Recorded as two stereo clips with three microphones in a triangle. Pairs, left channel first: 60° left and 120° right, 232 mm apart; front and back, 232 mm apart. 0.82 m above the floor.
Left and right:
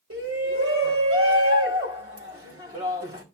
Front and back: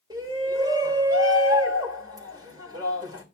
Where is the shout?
105° right, 3 m.